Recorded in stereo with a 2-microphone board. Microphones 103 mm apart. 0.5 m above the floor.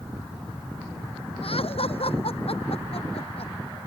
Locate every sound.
1.4 s laughter: 65° left (ahead or behind); by 3.5 s 70° left (ahead or behind)